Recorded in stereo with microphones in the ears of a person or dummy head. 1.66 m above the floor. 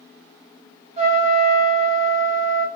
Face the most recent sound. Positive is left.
turn(degrees=-40)  # may be behind; listen again after turning